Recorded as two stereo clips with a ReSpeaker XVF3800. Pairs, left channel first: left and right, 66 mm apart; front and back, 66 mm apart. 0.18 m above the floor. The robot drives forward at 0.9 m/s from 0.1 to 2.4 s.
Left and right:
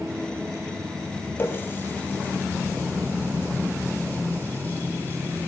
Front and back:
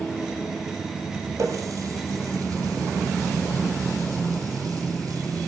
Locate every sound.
1.4 s a running tap: 145° left, 3 m; by 5.5 s 155° left, 3.5 m